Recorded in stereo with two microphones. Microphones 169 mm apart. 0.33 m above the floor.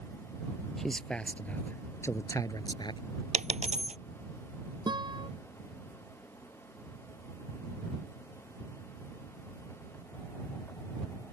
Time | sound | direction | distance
0.8 | a man speaking | centre (ahead or behind) | ?
3.3 | a dropped coin | 45° right (ahead or behind) | ?
4.9 | a guitar | 25° right (ahead or behind) | ?